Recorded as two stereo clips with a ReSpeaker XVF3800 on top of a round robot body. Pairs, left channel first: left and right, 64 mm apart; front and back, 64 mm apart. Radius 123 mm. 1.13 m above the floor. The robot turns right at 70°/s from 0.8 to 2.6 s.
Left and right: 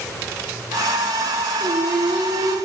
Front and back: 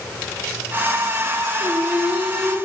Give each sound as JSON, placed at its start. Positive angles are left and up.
{"t": 1.6, "sound": "singing", "azimuth_deg": -140, "distance_m": 0.7}